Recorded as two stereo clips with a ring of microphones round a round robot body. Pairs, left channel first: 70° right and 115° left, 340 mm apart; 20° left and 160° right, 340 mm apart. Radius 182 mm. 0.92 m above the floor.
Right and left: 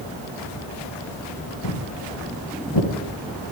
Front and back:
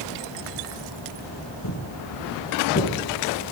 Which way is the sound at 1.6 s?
30° right.